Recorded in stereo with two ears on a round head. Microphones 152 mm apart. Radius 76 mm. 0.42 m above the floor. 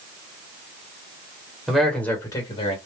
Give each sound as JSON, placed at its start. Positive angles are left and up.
{"t": 1.7, "sound": "a man speaking", "side_deg": 0, "distance_m": 1.7}